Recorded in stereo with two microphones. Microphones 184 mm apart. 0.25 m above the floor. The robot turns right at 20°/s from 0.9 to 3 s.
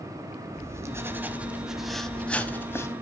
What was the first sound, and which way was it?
Writing, 20° right.